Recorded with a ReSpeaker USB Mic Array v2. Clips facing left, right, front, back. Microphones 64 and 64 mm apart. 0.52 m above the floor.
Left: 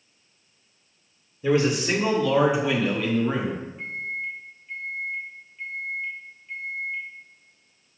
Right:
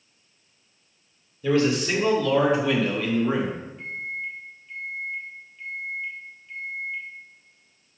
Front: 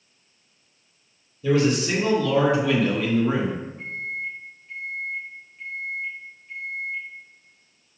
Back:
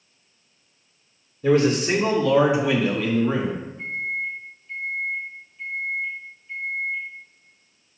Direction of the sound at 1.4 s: 155° left.